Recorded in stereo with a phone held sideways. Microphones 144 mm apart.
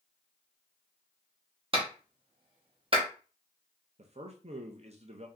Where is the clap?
40° right (ahead or behind), 1.4 m.